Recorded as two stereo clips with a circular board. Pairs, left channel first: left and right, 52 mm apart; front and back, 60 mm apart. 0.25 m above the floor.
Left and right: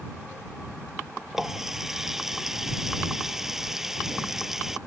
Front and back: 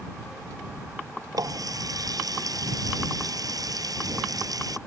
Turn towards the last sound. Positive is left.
turn(degrees=-170)